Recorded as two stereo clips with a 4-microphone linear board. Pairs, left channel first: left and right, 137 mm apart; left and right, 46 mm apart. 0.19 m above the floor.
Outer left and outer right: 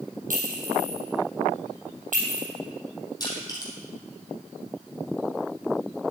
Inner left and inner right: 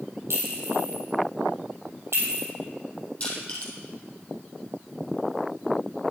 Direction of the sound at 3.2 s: 30° left (ahead or behind).